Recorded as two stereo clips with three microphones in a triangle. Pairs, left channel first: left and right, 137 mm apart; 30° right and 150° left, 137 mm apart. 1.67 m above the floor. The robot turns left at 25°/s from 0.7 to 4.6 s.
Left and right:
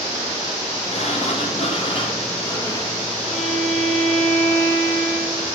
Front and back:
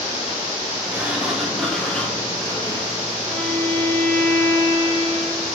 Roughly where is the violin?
Ahead left.